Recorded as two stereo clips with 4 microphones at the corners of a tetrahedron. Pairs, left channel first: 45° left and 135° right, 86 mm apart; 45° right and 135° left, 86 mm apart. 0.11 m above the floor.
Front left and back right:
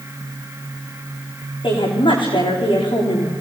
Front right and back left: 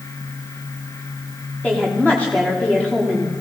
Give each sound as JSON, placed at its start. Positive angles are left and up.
{"t": 1.6, "sound": "a woman speaking", "azimuth_deg": 30, "distance_m": 9.5}